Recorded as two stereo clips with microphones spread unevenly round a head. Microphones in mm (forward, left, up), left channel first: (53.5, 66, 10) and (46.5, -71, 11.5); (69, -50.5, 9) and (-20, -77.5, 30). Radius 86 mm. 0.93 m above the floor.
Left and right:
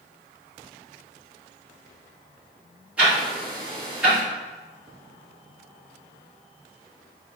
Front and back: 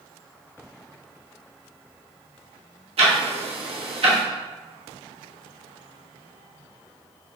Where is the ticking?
175° right, 1.1 m.